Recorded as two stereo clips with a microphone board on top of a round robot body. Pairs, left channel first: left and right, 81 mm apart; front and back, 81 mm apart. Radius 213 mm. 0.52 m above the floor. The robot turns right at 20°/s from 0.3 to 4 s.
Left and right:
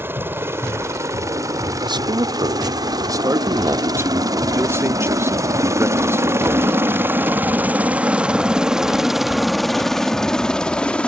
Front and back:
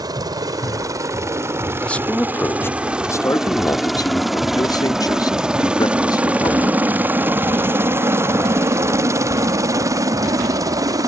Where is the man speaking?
75° right; by 6.8 s 35° right.